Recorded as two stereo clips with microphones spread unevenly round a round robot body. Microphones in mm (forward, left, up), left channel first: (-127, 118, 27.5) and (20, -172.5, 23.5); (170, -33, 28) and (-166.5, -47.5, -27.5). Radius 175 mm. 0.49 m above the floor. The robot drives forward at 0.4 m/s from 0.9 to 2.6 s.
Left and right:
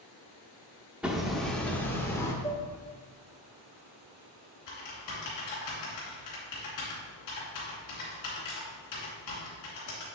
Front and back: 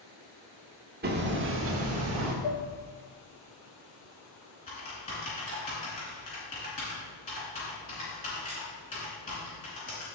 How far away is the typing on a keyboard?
About 3 m.